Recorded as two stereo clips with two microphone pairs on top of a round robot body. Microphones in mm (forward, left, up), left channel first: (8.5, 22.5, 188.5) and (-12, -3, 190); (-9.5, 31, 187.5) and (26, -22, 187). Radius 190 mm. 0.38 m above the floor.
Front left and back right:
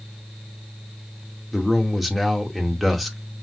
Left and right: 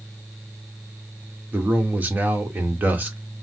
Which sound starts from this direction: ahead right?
A man speaking, at 1.5 s.